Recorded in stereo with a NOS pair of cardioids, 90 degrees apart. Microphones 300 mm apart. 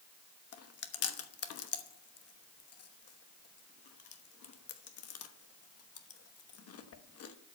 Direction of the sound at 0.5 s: 55° left.